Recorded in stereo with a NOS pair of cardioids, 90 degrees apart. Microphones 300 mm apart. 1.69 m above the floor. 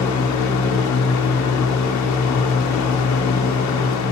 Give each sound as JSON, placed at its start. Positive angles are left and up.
{"t": 0.0, "sound": "a fan", "azimuth_deg": 65, "distance_m": 0.8}